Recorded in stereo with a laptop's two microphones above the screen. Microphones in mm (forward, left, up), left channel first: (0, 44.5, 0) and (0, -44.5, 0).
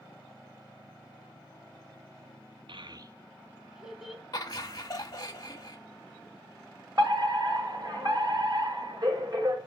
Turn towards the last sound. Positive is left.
turn(degrees=-50)  # may be behind; listen again after turning